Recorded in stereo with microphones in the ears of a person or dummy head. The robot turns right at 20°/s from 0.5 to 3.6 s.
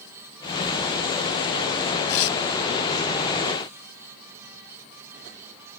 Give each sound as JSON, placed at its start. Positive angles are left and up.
{"t": 2.1, "sound": "tearing paper", "side_deg": 80}